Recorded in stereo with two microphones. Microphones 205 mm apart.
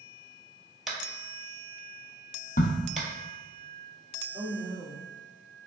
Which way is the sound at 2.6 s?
45° left (ahead or behind).